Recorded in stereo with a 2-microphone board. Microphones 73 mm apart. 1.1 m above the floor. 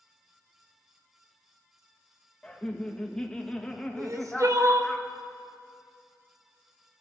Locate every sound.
2.4 s laughter: 10° left (ahead or behind), 1.2 m
4.0 s crying: 45° right (ahead or behind), 0.7 m